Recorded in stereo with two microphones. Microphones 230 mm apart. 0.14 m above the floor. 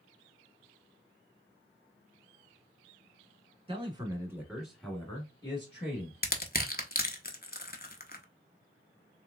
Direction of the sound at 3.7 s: 25° right (ahead or behind).